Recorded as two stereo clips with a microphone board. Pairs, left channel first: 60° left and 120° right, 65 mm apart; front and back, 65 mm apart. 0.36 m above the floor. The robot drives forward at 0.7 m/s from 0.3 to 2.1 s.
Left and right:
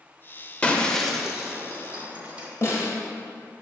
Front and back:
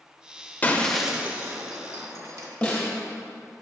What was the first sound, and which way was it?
Breaking glass, 15° left.